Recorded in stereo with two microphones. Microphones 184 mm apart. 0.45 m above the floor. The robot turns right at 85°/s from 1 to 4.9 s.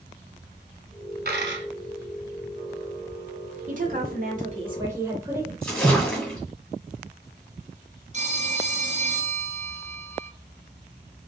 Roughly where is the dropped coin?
Behind right.